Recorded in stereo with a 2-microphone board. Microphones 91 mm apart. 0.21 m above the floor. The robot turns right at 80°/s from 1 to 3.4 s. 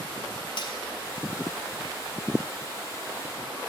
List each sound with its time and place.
0.6 s cutlery clinking: 55° left (ahead or behind), 1.1 m